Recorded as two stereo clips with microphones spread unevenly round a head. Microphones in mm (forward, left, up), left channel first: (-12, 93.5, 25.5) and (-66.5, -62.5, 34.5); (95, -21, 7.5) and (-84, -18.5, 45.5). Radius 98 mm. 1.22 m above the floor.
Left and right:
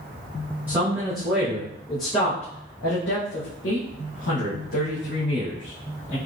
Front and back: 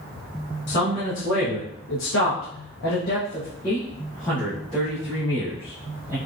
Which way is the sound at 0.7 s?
25° right.